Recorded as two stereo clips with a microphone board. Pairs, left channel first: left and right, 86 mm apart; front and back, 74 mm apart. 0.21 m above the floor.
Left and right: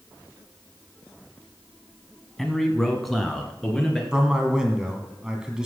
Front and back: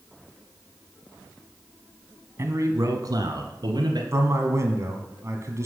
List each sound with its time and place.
2.4 s a man speaking: 175° left, 1.1 m; by 4.0 s straight behind, 2.5 m
4.1 s a man speaking: 170° right, 2 m